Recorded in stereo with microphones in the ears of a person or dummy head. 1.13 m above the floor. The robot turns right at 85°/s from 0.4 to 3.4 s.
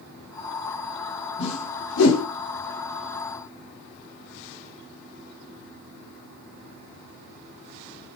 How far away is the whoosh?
About 2.5 m.